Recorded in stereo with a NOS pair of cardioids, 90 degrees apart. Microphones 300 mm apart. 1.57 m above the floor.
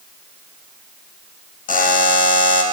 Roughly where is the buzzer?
Ahead left.